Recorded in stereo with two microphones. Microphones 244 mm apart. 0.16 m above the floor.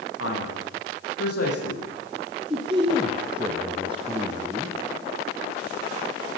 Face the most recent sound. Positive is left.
turn(degrees=-20)  # may be behind; listen again after turning